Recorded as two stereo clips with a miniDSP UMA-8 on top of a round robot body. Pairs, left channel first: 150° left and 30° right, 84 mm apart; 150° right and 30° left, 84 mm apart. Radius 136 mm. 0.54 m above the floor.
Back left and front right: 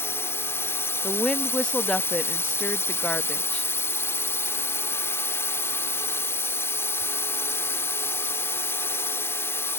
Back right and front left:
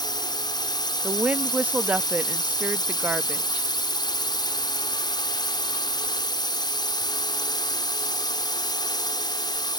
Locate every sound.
0.0 s a drone: 155° right
1.0 s a woman speaking: 80° left